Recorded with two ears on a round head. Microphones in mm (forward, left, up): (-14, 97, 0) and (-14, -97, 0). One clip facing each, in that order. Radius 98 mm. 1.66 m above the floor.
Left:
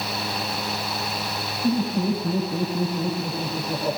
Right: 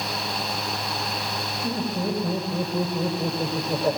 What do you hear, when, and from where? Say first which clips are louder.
1.6 s laughter: left 5 dB; 85° right, 7.5 m